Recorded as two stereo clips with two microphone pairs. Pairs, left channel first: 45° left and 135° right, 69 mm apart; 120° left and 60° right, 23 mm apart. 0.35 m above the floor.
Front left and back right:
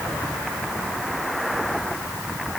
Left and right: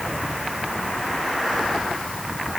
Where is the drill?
I don't hear a drill.